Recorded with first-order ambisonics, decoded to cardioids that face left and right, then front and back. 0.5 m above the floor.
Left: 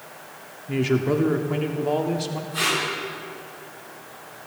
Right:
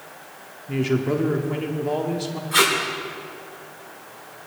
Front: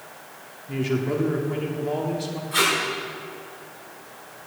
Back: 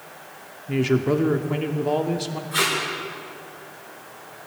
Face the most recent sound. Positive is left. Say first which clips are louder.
# right 6 dB, front 2 dB
turn(degrees=-85)